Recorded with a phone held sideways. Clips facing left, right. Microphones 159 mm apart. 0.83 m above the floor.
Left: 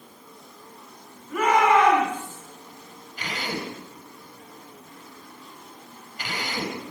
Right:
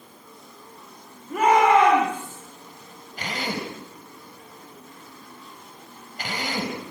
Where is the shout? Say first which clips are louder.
Right 2 dB; 35° right (ahead or behind), 6.5 m.